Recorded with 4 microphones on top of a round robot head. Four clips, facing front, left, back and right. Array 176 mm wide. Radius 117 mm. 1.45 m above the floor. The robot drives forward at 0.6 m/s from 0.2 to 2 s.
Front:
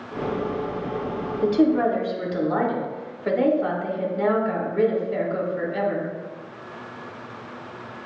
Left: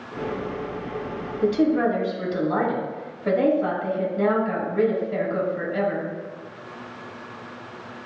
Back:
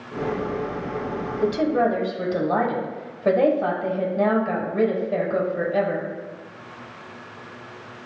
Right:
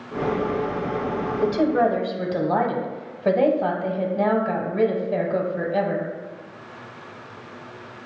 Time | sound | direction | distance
1.4 | a woman speaking | 120° right | 1.0 m